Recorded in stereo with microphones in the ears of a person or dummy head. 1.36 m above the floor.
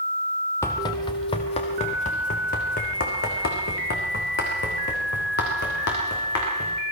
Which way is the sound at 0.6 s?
15° left (ahead or behind).